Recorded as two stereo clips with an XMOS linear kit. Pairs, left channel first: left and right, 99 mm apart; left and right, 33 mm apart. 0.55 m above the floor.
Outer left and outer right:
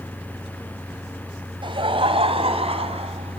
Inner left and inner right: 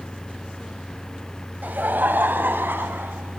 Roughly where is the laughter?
Right.